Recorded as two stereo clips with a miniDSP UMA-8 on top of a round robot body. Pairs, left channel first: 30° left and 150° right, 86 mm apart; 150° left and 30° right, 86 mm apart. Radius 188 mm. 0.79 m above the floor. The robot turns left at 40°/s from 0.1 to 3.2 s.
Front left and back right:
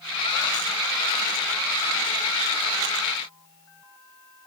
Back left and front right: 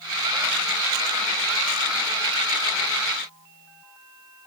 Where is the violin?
I don't hear a violin.